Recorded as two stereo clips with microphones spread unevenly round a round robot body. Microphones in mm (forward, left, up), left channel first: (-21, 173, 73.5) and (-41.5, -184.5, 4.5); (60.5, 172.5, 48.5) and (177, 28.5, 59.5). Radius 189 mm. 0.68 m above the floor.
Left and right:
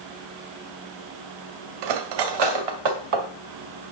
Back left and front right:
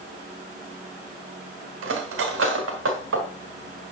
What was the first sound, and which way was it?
Cutlery clinking, 75° right.